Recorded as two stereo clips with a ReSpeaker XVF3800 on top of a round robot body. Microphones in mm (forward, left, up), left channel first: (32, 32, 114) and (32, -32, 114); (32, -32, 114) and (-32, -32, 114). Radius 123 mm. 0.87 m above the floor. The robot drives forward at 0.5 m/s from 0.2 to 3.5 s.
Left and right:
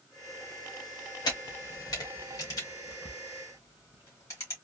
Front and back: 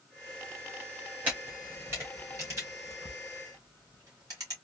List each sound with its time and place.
1.2 s a camera shutter: 110° left, 1.6 m; by 4.5 s 140° left, 2 m